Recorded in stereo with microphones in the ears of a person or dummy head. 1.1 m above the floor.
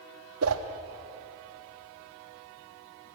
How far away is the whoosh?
About 1.2 m.